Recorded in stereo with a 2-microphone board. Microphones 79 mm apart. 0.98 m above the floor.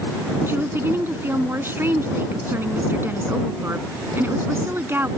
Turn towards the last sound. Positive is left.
turn(degrees=-30)  # may be behind; listen again after turning